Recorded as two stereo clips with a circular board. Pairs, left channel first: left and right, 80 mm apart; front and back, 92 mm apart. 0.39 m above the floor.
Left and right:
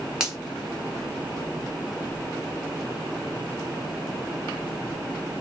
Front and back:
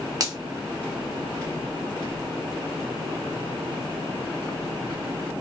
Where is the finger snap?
165° right, 0.8 m.